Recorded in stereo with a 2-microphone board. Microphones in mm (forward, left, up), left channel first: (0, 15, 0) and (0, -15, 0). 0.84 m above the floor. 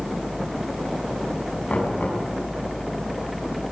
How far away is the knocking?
About 7.5 m.